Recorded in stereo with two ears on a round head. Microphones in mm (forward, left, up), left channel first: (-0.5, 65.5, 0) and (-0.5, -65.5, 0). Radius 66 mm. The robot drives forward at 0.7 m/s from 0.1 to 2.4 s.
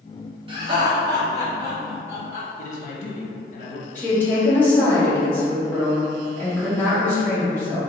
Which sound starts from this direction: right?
Laughter, at 0.5 s.